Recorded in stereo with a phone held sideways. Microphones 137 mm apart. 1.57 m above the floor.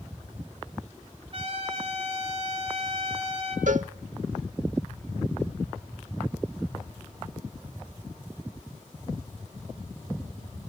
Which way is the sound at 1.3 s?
45° right (ahead or behind).